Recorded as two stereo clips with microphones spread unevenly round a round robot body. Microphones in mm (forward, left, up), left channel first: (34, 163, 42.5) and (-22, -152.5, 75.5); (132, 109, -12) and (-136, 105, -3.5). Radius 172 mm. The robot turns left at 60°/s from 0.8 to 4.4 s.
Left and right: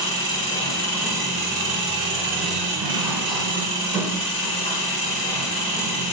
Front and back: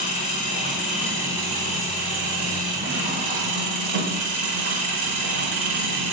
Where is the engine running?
5° left, 5 m; by 6.1 s 150° left, 5 m.